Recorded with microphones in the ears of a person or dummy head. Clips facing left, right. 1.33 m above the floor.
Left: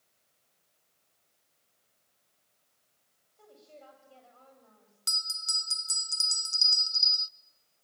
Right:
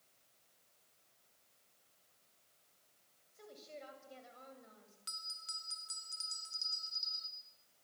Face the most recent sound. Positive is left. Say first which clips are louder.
# left 8 dB
turn(degrees=60)  # may be behind; listen again after turning